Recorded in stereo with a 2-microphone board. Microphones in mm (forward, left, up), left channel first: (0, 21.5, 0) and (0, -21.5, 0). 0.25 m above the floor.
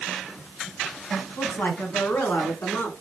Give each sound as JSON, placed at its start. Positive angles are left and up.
{"t": 1.4, "sound": "a woman speaking", "side_deg": 50, "distance_m": 1.8}